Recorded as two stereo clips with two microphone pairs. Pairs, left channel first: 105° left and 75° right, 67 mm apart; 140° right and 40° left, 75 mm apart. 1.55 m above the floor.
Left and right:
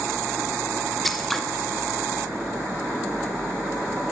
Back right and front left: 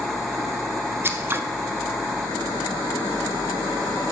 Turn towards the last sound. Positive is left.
turn(degrees=25)